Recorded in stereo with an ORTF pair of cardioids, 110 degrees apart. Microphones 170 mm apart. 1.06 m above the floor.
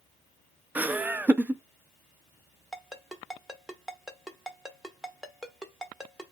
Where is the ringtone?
Straight ahead, 0.9 m.